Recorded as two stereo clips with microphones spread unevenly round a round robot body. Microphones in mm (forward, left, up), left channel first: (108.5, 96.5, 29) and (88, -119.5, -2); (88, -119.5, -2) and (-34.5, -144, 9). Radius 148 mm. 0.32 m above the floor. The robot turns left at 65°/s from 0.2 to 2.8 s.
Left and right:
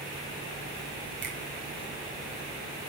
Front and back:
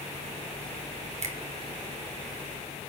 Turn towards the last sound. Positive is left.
turn(degrees=120)